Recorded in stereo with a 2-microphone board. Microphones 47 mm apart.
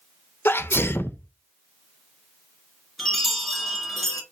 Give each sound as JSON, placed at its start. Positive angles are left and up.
{"t": 0.5, "sound": "a sneeze", "side_deg": 55, "distance_m": 0.5}
{"t": 3.0, "sound": "a chime", "side_deg": -5, "distance_m": 1.5}